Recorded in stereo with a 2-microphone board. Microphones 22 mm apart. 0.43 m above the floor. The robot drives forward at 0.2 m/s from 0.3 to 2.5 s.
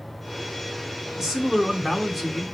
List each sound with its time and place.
1.2 s a man speaking: 20° right (ahead or behind), 1.0 m